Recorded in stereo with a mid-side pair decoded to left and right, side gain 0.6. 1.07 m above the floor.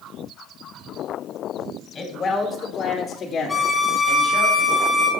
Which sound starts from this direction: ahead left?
A man speaking, at 1.9 s.